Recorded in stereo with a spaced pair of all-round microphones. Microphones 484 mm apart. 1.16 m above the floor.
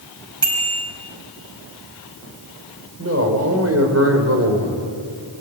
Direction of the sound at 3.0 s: 30° right (ahead or behind).